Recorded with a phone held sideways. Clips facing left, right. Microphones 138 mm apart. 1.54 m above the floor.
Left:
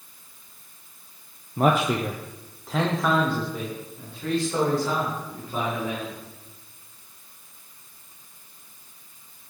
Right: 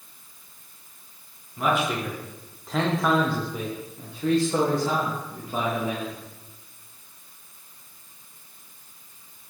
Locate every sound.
1.6 s a man speaking: 50° left (ahead or behind), 0.5 m; by 6.2 s 25° right (ahead or behind), 2.5 m